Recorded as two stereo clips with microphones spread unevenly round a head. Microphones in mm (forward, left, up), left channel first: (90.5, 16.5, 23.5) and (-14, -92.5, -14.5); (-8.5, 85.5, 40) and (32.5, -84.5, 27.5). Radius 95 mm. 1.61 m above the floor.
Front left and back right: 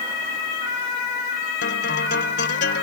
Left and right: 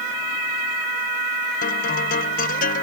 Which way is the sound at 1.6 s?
60° left.